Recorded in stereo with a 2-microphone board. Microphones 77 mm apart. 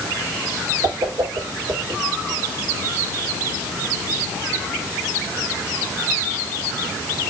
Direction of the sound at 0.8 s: 70° right (ahead or behind).